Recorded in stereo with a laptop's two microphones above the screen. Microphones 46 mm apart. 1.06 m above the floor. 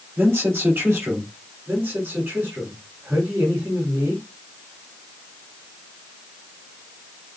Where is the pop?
No pop in this recording.